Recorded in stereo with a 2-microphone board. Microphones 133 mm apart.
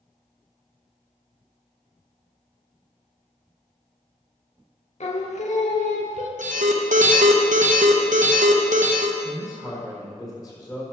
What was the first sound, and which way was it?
Singing, 60° left (ahead or behind).